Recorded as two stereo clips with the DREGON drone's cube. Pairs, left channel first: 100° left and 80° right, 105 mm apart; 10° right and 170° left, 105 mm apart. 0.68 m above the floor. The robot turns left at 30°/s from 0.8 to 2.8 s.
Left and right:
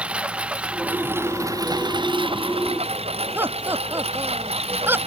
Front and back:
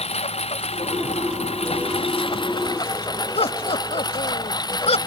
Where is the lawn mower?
Straight ahead; by 5.1 s 60° right.